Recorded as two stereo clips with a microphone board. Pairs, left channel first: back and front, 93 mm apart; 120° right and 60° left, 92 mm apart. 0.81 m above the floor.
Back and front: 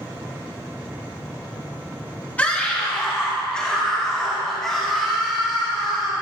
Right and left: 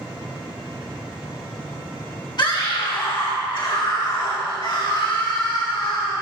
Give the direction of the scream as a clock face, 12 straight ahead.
4 o'clock.